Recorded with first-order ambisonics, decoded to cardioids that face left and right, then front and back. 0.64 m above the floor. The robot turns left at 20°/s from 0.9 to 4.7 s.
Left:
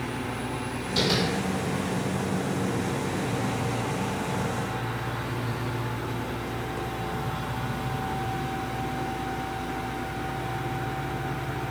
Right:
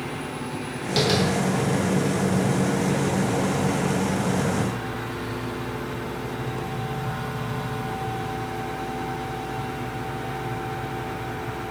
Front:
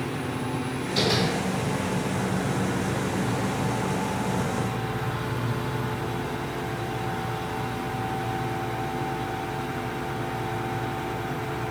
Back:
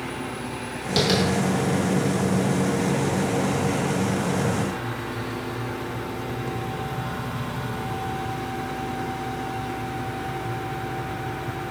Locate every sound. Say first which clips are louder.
1.0 s tapping: right 3 dB, back 2 dB; 145° right, 1.1 m; by 1.2 s 150° right, 1.1 m